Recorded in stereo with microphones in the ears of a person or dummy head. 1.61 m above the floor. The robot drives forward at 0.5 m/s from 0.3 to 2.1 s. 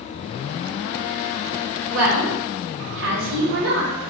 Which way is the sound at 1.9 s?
75° right (ahead or behind).